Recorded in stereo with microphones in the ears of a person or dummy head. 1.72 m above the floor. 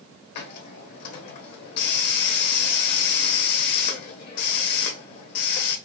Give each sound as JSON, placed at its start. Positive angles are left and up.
{"t": 0.3, "sound": "a hiss", "side_deg": 50, "distance_m": 0.9}